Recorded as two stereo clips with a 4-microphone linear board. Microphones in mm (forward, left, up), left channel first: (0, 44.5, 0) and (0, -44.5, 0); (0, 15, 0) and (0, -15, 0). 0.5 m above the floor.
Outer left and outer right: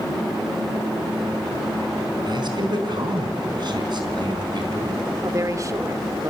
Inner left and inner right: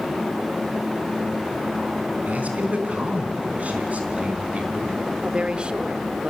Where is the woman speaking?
35° right (ahead or behind), 1.1 m.